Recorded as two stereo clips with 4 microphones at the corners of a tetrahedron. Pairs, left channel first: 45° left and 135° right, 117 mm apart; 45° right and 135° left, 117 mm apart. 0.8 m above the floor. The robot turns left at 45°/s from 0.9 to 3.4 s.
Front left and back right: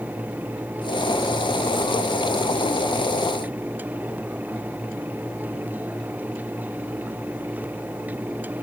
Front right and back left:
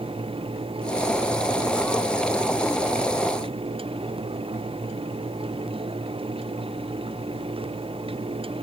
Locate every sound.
Only background noise.